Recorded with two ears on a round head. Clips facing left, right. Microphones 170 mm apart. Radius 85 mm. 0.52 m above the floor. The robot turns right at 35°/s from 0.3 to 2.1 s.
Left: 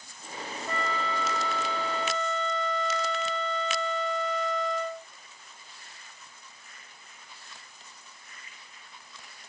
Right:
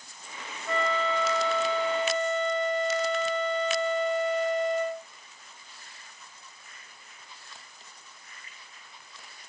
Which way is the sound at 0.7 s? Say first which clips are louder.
Right 5 dB; 95° right.